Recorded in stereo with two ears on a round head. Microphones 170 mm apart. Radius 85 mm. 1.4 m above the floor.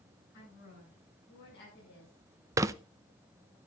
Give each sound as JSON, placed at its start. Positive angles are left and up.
{"t": 0.3, "sound": "a woman speaking", "side_deg": 60, "distance_m": 9.0}
{"t": 2.6, "sound": "crumpling", "side_deg": -15, "distance_m": 0.5}